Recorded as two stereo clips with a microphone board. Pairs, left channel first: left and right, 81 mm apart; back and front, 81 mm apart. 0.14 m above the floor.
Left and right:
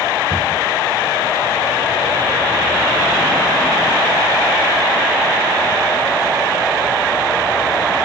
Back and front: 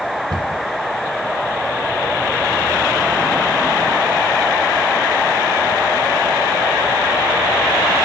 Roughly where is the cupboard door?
Ahead.